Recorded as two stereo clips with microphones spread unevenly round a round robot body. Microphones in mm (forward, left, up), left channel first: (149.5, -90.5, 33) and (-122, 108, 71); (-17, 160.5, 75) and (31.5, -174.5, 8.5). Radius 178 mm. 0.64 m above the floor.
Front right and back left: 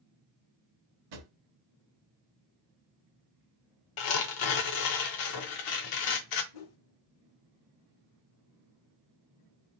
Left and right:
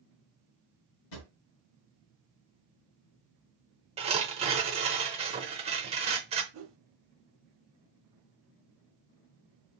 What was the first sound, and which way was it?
A drawer, 135° left.